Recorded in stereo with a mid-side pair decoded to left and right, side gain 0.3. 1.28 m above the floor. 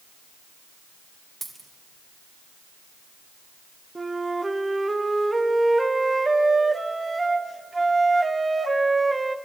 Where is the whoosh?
No whoosh in this recording.